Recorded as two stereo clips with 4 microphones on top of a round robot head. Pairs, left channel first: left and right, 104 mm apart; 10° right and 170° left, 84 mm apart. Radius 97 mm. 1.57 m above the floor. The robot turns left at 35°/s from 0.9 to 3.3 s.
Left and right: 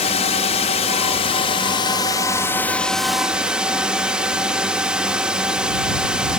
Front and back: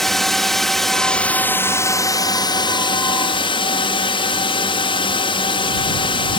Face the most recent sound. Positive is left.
turn(degrees=-10)